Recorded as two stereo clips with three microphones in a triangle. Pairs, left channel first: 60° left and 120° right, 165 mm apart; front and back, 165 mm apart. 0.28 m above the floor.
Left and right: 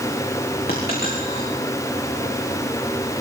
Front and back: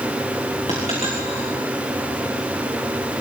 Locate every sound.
0.7 s a dropped coin: 45° left, 9.5 m